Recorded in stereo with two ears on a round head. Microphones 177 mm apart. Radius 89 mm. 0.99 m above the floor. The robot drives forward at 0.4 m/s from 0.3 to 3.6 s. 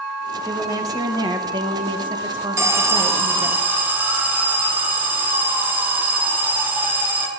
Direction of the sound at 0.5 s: 15° right (ahead or behind).